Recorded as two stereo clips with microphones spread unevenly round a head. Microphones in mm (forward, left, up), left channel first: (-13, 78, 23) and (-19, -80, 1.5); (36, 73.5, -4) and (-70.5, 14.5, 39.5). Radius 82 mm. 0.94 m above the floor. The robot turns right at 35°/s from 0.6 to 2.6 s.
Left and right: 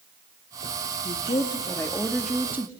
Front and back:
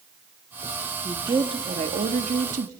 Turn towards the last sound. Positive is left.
turn(degrees=-165)